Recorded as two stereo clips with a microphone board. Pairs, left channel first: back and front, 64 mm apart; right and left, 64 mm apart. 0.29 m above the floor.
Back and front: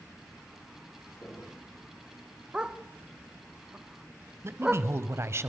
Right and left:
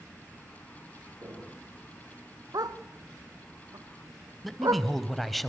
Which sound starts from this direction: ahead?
A man speaking, at 4.4 s.